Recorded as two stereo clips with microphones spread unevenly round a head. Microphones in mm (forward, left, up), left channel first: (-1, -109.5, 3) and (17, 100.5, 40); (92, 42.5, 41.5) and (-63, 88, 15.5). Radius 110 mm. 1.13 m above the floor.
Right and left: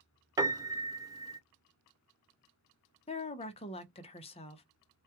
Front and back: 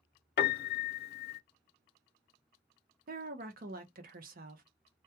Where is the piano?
5° left, 0.7 m.